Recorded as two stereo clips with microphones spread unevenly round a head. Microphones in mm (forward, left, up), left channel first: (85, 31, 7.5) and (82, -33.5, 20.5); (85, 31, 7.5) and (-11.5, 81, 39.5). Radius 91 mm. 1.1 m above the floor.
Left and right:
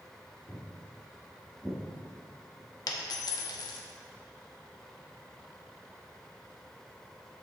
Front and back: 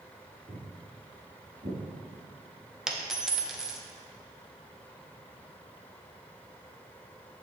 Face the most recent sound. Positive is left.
turn(degrees=75)